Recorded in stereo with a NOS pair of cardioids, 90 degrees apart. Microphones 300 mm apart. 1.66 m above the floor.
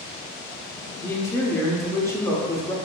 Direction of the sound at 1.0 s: 10° left.